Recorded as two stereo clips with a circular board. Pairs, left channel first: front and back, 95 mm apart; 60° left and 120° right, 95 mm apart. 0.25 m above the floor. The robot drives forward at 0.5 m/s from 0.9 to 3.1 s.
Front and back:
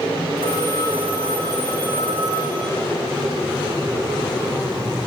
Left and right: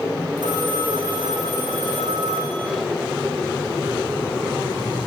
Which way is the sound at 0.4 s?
160° right.